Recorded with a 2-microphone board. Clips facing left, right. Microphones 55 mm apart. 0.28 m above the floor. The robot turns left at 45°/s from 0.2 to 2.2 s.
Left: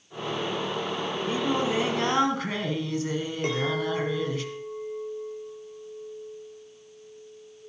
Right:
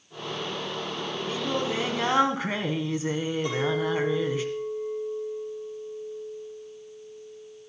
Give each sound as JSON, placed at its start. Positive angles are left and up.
{"t": 1.3, "sound": "singing", "azimuth_deg": 30, "distance_m": 1.7}
{"t": 3.4, "sound": "a clink", "side_deg": 60, "distance_m": 4.5}